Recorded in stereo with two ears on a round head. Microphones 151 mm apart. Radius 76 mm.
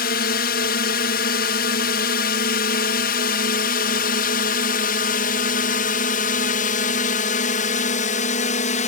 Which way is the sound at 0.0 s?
60° left (ahead or behind).